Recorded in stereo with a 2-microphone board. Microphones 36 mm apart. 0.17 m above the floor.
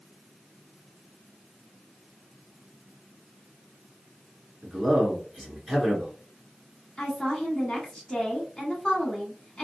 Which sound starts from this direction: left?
A woman speaking, at 7.0 s.